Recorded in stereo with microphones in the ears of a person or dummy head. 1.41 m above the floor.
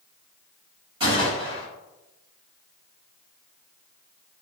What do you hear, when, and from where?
1.0 s a gunshot: 25° right (ahead or behind), 1.9 m